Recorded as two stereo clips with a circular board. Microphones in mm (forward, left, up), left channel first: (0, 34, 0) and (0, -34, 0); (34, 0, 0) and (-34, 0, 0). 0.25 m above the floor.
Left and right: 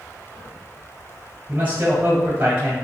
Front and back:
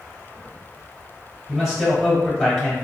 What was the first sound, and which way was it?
A man speaking, 100° right.